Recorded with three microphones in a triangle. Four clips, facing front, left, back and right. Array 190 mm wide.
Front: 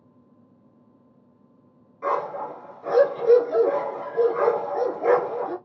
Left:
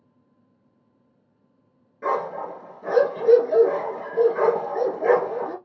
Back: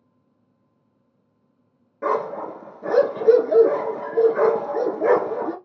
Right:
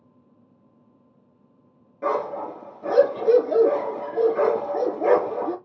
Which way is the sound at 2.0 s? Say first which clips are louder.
Even, back 2 dB; 165° right.